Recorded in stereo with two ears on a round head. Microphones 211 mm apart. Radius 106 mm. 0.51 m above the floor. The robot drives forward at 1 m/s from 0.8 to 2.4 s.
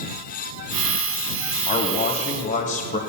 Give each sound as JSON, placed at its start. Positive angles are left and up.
{"t": 1.7, "sound": "a man speaking", "side_deg": 25, "distance_m": 3.0}